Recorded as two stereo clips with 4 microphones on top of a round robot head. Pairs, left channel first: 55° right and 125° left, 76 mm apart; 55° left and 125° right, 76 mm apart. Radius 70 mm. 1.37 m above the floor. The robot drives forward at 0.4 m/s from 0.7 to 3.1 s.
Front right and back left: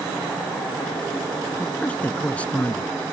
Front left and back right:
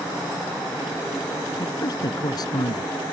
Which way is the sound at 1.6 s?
15° left.